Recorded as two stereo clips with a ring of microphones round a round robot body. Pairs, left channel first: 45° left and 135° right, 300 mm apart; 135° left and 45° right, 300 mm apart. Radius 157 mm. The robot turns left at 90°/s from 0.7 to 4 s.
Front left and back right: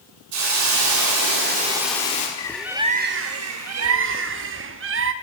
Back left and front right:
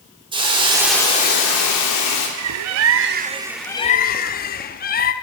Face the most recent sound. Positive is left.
turn(degrees=-170)